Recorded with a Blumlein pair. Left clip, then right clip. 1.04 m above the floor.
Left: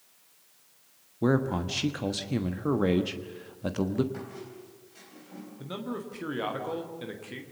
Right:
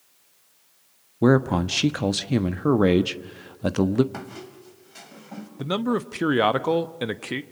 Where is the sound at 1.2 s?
70° right, 1.2 m.